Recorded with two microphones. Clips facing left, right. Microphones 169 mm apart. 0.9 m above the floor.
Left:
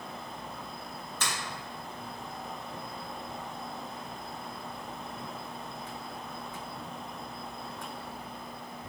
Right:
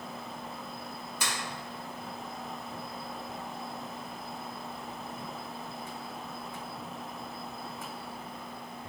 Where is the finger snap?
10° right (ahead or behind), 1.6 m.